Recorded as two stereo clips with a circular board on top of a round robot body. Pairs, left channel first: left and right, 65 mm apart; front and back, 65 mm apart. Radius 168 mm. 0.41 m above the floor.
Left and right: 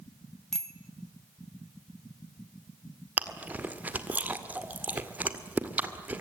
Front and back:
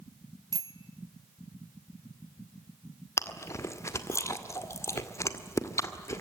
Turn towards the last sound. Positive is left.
turn(degrees=-30)